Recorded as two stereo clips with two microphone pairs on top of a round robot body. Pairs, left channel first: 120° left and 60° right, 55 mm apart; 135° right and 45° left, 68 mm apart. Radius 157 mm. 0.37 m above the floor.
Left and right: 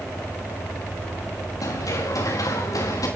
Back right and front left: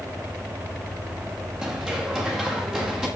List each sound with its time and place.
1.6 s running footsteps: 125° left, 9 m